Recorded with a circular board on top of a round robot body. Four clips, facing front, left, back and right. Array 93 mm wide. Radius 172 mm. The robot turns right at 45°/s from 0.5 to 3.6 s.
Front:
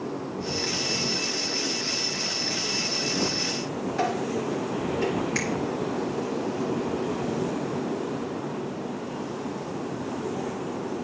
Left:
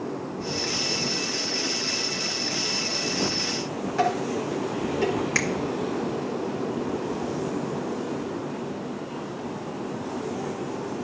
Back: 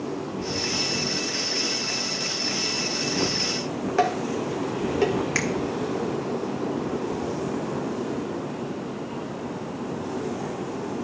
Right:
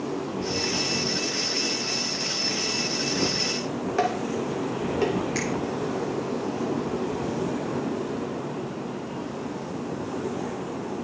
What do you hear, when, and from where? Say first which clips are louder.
4.0 s dishes clattering: left 2 dB, back 3 dB; 160° right, 2 m
5.3 s a finger snap: left 1 dB, back 2 dB; 135° left, 1.9 m